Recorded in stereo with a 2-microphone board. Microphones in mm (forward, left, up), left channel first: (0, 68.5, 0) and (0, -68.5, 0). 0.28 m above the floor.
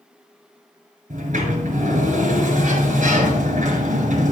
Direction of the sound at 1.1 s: 65° right (ahead or behind).